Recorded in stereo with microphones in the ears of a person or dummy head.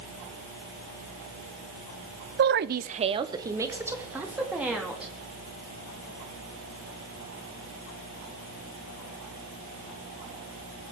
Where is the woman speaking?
50° right (ahead or behind), 0.6 m; by 5.1 s 10° right (ahead or behind), 3 m.